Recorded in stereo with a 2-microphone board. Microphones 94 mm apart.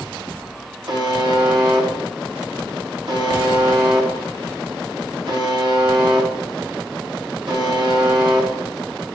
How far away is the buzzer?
About 3 m.